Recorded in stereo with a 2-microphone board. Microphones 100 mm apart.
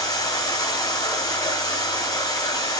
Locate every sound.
0.0 s running water: 35° left (ahead or behind), 6.5 m